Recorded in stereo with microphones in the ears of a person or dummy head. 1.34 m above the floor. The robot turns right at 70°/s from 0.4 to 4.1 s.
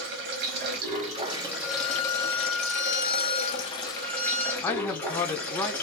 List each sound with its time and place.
0.0 s running water: 95° right, 0.9 m; by 5.8 s 165° left, 0.9 m
1.6 s a violin: 105° left, 1.2 m; by 4.5 s 80° right, 1.2 m
4.6 s a man speaking: 20° left (ahead or behind), 0.5 m